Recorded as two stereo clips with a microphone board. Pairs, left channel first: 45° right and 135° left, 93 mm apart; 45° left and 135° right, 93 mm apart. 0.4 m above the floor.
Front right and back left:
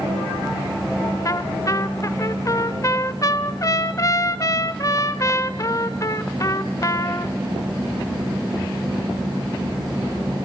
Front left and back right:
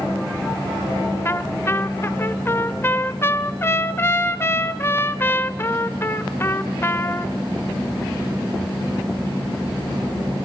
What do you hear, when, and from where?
1.2 s a trumpet: 10° right, 0.8 m